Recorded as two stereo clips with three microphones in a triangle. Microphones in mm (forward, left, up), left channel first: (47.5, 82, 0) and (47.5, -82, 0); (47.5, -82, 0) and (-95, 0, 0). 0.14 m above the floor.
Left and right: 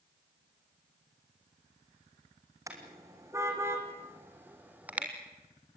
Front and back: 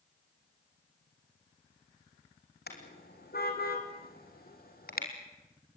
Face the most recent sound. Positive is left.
turn(degrees=-10)